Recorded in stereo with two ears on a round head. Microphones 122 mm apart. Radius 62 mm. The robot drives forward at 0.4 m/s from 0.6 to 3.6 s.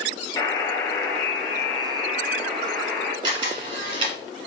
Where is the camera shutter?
35° right (ahead or behind), 1.5 m; by 4.2 s 40° right (ahead or behind), 1.4 m.